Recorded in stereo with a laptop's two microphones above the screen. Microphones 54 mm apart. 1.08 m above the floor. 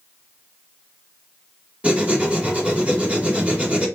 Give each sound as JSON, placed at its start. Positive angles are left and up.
{"t": 1.8, "sound": "writing", "side_deg": -25, "distance_m": 1.8}